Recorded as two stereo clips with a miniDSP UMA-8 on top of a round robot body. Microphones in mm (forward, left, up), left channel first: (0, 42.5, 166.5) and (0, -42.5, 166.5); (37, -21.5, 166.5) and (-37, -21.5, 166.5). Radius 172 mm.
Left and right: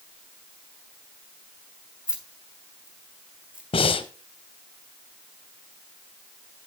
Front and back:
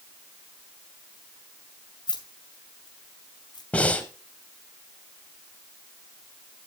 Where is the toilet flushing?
I don't hear a toilet flushing.